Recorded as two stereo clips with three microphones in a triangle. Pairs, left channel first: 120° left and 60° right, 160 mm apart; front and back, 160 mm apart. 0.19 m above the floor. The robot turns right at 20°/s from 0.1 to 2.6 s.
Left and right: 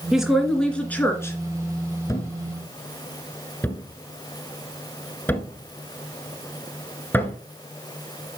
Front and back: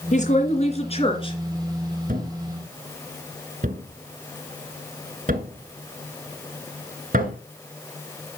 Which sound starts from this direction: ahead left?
A woman speaking, at 0.1 s.